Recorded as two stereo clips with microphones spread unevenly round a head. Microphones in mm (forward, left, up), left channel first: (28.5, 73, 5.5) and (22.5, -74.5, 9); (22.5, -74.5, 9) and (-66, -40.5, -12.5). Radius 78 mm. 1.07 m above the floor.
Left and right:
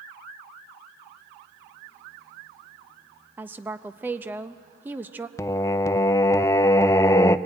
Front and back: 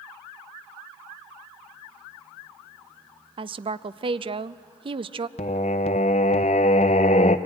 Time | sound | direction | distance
3.4 | a woman speaking | 170° right | 0.6 m
5.4 | singing | 20° left | 0.5 m